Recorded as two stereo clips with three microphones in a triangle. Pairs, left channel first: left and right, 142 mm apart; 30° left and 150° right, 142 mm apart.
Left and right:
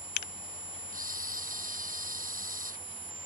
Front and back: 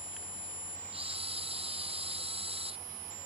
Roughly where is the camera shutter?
Right.